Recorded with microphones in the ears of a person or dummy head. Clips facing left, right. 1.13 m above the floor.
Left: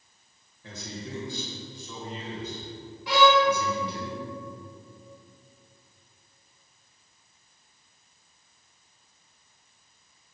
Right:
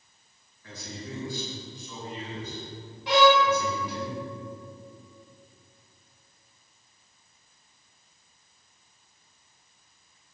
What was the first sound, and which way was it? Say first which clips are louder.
A man speaking: left 1 dB; 25° left (ahead or behind).